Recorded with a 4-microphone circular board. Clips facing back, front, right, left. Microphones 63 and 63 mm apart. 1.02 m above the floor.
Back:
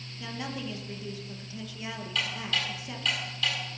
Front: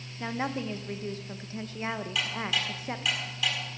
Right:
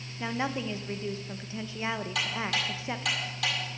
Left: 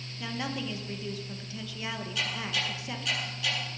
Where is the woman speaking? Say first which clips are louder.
Front 5 dB, right 3 dB; 35° right, 1.1 m.